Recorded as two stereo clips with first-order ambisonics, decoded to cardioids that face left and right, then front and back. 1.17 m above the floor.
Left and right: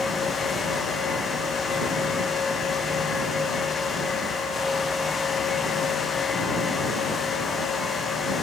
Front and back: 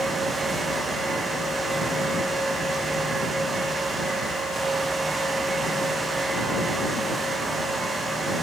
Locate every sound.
Only background noise.